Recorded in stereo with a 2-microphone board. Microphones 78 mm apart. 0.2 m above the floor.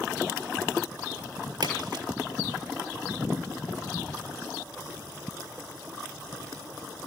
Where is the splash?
70° right (ahead or behind), 4.5 m.